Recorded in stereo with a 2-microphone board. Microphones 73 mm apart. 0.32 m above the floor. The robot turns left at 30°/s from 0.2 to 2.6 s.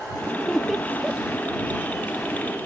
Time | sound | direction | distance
0.4 | laughter | 10° left (ahead or behind) | ?